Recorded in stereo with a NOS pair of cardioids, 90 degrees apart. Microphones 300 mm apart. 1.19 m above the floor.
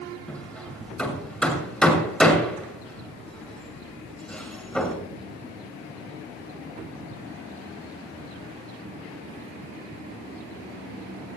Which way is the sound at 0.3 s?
5° left.